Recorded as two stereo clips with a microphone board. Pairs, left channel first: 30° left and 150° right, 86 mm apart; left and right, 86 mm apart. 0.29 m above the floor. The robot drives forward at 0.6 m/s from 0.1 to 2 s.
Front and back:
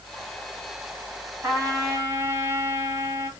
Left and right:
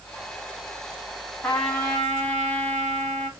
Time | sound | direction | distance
1.4 | a trumpet | 155° left | 2 m